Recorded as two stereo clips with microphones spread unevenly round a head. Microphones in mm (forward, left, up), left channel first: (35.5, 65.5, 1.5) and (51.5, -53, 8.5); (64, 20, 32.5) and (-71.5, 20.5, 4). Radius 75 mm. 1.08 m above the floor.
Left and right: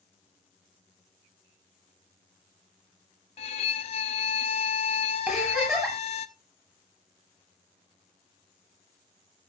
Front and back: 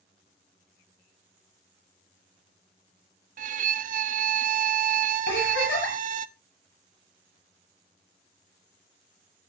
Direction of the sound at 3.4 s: 145° left.